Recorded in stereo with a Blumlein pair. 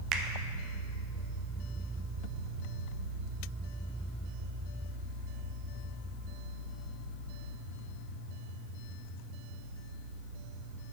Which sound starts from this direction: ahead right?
A finger snap, at 0.1 s.